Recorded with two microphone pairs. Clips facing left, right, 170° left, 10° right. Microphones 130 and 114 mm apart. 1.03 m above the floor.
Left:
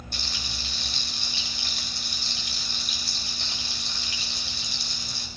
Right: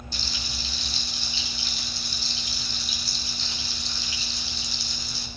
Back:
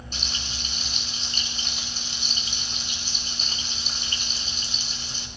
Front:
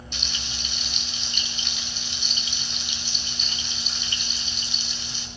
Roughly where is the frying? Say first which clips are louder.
Right 1 dB, back 1 dB; behind left.